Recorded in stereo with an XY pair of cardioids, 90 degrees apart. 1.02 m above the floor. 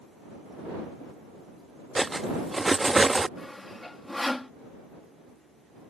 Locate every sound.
1.9 s cutlery clinking: 15° right
3.4 s sawing: 15° left